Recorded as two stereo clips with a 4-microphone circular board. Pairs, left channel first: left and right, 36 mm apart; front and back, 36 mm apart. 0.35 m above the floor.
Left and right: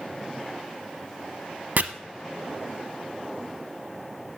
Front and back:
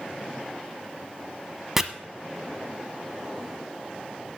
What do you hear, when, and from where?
1.8 s chopping: 100° right, 0.8 m